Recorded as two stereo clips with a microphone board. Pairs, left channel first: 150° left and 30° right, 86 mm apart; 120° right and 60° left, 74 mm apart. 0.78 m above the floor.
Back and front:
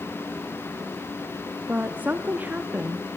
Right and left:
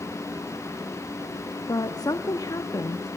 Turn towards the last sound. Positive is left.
turn(degrees=-100)